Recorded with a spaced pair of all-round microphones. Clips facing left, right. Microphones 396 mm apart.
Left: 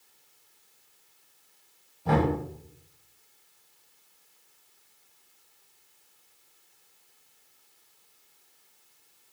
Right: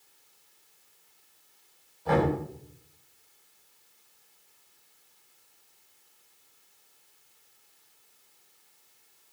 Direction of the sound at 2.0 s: 45° left (ahead or behind).